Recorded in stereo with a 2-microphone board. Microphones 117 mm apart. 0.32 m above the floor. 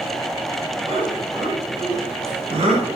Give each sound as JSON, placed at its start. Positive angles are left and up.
{"t": 0.9, "sound": "laughter", "side_deg": -50, "distance_m": 3.5}